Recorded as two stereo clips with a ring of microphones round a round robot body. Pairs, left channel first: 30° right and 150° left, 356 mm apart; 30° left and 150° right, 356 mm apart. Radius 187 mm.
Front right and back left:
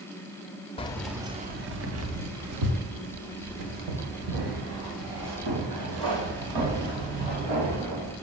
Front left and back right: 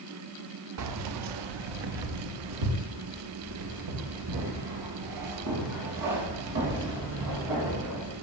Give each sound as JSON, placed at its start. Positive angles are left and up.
{"t": 0.8, "sound": "keys jangling", "azimuth_deg": -105, "distance_m": 0.7}